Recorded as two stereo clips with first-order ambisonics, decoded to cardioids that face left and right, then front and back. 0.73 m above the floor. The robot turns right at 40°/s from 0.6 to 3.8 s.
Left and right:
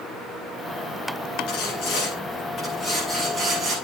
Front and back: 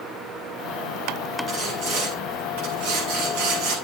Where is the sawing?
120° left, 7.5 m; by 3.8 s 150° right, 7.5 m.